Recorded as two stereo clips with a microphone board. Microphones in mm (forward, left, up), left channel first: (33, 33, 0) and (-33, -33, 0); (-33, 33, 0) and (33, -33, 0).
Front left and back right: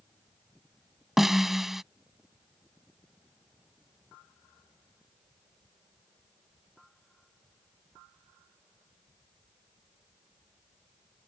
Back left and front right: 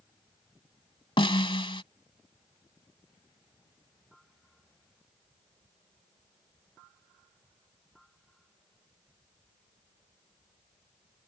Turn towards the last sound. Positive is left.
turn(degrees=140)